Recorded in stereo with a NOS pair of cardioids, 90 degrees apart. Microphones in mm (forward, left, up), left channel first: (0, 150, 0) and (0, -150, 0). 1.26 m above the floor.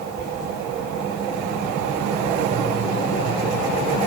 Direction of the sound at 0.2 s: 40° right.